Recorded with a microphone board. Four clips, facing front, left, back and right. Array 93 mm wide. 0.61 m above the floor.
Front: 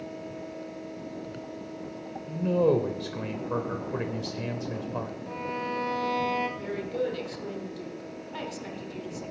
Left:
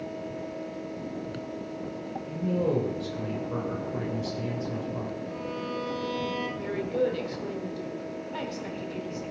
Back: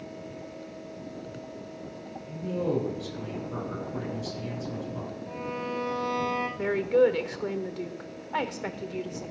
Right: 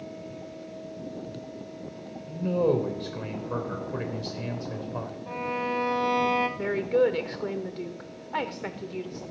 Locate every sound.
2.3 s a man speaking: 30° right, 3 m
5.3 s a violin: 75° right, 1.3 m
6.6 s a woman speaking: 140° right, 1.5 m